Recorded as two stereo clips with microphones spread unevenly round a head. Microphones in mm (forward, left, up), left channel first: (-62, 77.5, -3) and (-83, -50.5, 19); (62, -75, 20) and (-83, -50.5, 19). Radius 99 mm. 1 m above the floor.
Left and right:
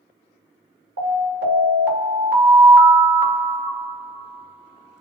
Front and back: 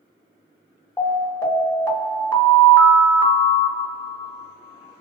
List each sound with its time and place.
1.0 s an alarm: 80° right, 1.8 m